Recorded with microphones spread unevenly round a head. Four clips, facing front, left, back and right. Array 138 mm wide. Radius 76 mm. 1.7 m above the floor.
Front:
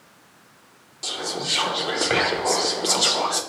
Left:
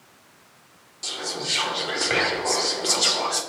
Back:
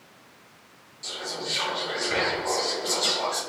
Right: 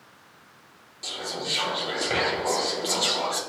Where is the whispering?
5° left, 0.5 m.